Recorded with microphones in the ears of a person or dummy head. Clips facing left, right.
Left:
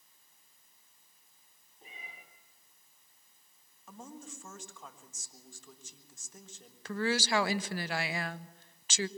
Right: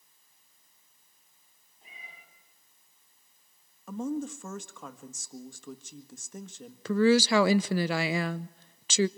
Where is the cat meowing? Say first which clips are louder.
Left 2 dB; 45° left (ahead or behind), 9 m.